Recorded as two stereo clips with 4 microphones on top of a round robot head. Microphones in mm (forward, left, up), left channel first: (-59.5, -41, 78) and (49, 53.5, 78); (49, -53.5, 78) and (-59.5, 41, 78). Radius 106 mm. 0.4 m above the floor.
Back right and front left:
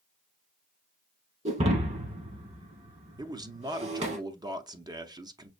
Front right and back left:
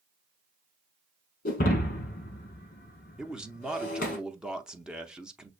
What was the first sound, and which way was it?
Breaking glass, 5° right.